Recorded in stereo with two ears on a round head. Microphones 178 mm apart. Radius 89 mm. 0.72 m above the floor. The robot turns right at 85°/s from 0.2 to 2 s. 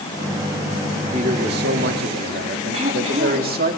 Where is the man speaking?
140° right, 1.7 m; by 3.7 s 65° right, 1.7 m.